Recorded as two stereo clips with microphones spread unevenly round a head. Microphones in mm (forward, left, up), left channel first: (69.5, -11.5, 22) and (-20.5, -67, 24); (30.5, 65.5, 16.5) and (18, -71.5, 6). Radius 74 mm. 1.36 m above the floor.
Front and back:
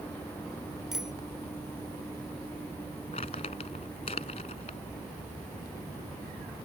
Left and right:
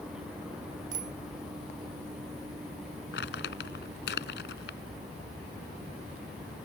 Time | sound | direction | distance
0.9 | a bicycle bell | 65° right | ?
3.1 | crumpling | 85° left | ?